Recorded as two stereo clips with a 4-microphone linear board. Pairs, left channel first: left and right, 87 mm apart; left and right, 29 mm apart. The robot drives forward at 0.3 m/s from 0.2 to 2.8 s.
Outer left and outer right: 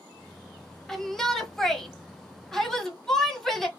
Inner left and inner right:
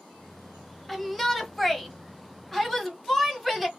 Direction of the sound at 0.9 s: 5° left (ahead or behind).